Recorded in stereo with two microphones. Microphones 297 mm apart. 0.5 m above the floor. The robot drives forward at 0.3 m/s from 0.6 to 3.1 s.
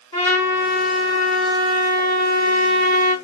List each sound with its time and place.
0.1 s a trumpet: 55° right (ahead or behind), 1.9 m